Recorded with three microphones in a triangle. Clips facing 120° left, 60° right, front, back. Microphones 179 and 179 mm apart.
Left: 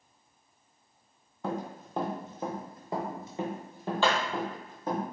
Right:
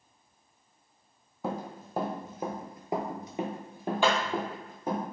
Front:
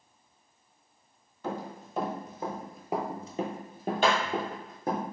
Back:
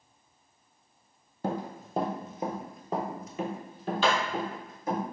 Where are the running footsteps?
145° right, 1.0 m; by 5.0 s 20° left, 1.5 m.